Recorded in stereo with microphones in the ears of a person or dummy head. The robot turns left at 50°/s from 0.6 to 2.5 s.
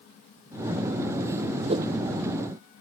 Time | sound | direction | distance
1.7 | a whoosh | 30° right (ahead or behind) | ?